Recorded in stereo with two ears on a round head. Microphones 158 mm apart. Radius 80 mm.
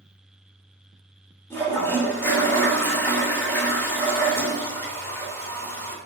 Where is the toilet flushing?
15° left (ahead or behind), 3 m.